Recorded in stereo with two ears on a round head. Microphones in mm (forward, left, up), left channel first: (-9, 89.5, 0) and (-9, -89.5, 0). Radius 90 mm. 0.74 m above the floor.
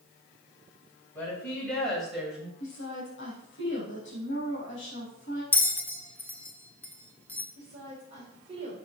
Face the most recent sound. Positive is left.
turn(degrees=-25)  # may be behind; listen again after turning